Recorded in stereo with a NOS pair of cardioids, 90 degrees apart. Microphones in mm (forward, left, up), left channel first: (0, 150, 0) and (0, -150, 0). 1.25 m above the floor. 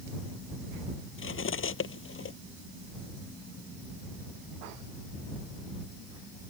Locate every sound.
1.2 s cutlery clinking: 45° left